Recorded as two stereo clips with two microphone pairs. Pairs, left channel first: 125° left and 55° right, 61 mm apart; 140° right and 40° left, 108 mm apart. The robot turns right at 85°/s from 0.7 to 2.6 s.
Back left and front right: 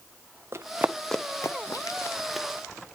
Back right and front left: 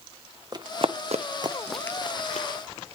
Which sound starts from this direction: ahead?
Running footsteps, at 0.5 s.